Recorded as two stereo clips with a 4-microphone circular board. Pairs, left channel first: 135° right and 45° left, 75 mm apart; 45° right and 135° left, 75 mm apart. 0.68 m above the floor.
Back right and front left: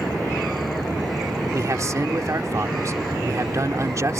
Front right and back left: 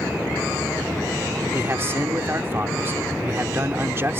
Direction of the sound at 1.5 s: 85° left.